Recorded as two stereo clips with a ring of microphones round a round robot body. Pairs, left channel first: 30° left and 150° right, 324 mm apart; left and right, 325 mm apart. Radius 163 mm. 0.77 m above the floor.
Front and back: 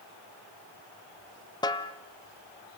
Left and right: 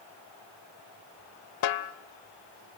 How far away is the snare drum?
About 0.9 m.